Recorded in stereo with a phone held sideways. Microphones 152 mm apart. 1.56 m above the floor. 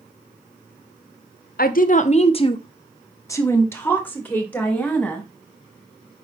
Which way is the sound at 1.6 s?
70° left (ahead or behind).